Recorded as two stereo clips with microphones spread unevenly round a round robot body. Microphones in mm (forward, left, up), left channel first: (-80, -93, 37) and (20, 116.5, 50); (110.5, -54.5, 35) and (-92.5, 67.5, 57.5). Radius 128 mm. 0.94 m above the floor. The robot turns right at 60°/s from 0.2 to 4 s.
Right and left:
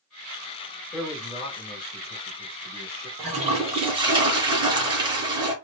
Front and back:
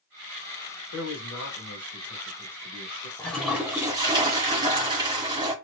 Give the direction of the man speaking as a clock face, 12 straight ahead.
1 o'clock.